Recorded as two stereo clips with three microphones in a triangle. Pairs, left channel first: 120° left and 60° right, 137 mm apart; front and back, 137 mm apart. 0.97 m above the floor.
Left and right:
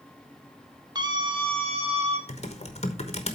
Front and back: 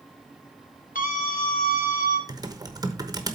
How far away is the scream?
About 1.7 m.